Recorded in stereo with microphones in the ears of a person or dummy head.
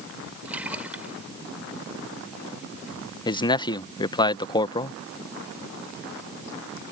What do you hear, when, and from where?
0.5 s a splash: 5° right (ahead or behind)
3.2 s a man speaking: 25° left (ahead or behind)